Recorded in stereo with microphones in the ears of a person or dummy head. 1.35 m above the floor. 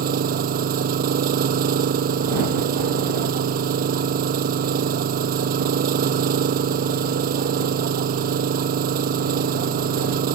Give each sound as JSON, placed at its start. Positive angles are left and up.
{"t": 0.0, "sound": "an engine running", "side_deg": -50}